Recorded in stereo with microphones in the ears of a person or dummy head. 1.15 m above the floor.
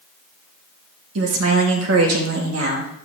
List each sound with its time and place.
1.1 s a woman speaking: 75° right (ahead or behind), 2 m